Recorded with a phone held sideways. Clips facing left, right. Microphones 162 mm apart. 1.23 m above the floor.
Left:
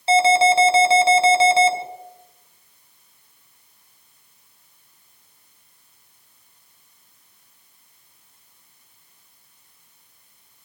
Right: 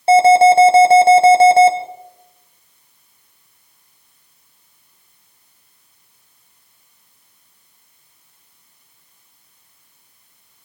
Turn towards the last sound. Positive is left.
turn(degrees=-55)  # may be behind; listen again after turning